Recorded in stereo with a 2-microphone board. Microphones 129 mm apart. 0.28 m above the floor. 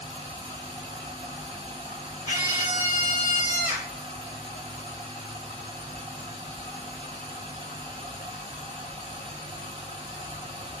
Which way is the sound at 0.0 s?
45° right (ahead or behind).